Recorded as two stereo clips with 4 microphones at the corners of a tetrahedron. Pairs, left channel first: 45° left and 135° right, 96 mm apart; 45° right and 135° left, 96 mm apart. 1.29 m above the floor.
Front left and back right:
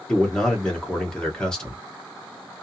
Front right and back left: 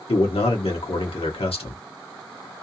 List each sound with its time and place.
0.1 s a man speaking: 35° right, 1.4 m